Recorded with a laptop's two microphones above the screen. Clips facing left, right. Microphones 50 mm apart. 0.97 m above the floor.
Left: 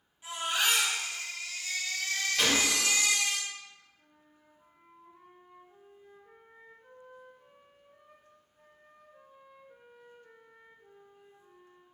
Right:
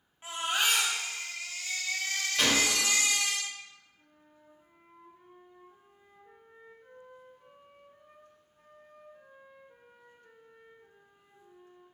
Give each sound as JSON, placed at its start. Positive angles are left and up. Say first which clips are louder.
{"t": 0.2, "sound": "a baby crying", "louder": "even", "side_deg": -40, "distance_m": 1.6}
{"t": 2.4, "sound": "a gunshot", "louder": "right 1 dB", "side_deg": 0, "distance_m": 1.2}
{"t": 4.0, "sound": "a flute", "louder": "right 2 dB", "side_deg": 5, "distance_m": 1.5}